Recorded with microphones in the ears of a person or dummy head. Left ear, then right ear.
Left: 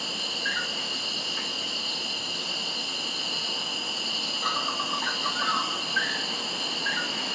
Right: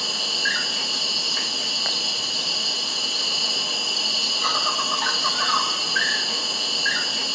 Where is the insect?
60° right (ahead or behind), 1.3 m.